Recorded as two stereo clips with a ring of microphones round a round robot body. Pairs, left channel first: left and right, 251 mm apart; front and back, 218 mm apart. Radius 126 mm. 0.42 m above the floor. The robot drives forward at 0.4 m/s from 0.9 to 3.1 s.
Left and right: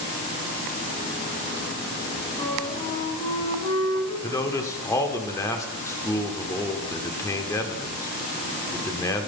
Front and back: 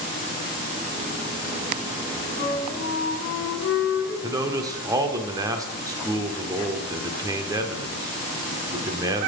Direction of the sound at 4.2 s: 145° left.